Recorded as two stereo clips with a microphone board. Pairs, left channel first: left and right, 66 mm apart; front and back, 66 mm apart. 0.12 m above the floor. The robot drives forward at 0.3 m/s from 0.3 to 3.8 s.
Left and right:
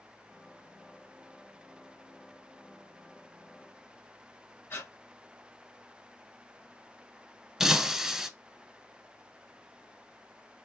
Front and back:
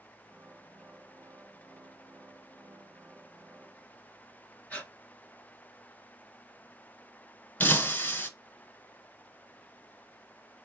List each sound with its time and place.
4.7 s breathing: 60° left, 0.7 m
7.6 s breaking glass: 10° right, 0.7 m